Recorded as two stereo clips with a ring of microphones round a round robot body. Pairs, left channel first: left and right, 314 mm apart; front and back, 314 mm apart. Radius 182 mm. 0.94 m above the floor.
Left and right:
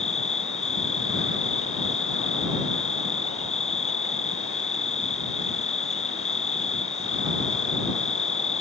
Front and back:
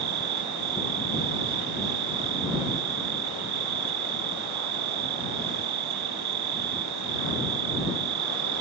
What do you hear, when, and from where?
0.0 s an insect: 160° left